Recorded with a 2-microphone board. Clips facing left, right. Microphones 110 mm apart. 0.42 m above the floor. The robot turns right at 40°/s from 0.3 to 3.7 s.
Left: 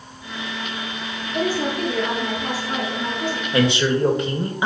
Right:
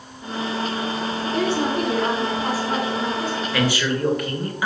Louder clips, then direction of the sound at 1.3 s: Even; 85° right.